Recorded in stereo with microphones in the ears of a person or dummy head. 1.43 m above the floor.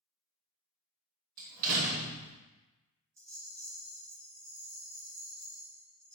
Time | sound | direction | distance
1.4 | a door slam | 50° right (ahead or behind) | 0.7 m
3.2 | a rattle | 15° right (ahead or behind) | 1.0 m